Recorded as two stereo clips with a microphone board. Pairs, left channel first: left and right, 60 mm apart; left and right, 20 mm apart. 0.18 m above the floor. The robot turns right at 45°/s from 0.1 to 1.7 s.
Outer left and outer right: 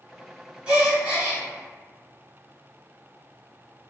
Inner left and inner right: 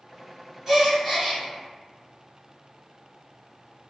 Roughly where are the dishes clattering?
No dishes clattering in this recording.